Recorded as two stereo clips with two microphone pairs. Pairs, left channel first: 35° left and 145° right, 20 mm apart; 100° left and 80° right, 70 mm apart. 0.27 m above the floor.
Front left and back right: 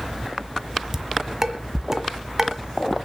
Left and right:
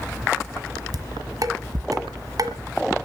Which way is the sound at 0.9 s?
75° right.